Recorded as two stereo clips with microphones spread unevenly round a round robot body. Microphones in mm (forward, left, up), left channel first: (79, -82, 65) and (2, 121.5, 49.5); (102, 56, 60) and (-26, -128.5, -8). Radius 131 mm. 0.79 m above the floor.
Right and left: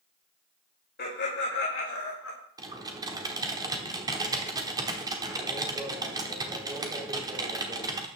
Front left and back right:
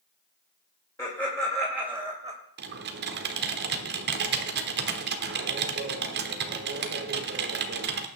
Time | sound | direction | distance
1.0 | laughter | 25° right | 3 m
2.6 | typing on a keyboard | 175° right | 1.1 m